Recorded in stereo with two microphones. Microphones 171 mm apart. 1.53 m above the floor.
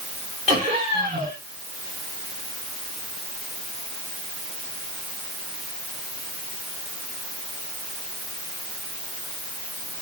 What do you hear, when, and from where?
0.5 s laughter: 45° right (ahead or behind), 5 m